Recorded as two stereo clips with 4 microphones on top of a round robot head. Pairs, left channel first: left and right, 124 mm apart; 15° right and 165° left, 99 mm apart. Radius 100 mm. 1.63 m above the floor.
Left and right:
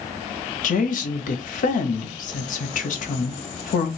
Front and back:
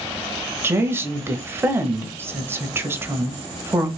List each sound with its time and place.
0.6 s a woman speaking: 100° left, 1.2 m